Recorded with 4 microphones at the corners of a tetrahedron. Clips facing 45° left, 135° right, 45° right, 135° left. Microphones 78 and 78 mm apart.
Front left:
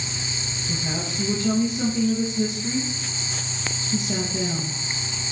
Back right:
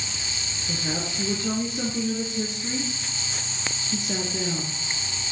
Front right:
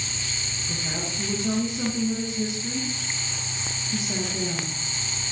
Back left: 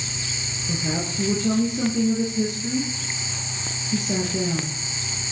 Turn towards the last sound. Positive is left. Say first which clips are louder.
# even, back left 6 dB
turn(degrees=170)